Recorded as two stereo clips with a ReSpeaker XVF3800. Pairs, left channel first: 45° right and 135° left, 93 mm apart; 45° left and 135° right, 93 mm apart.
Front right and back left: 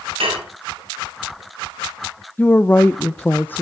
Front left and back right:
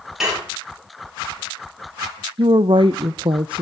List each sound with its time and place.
0.2 s dishes clattering: 140° left, 5 m
2.4 s a woman speaking: 115° right, 0.5 m